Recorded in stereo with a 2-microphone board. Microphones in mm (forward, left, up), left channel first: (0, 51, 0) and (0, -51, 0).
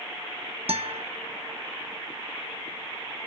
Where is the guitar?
75° right (ahead or behind), 0.7 m.